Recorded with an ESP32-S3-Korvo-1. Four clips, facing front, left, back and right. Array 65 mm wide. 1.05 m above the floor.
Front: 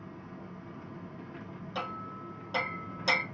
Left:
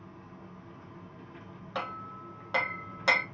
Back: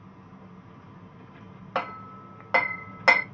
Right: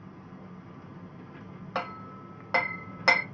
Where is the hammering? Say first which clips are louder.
Right 2 dB, back 6 dB; 170° right, 0.5 m.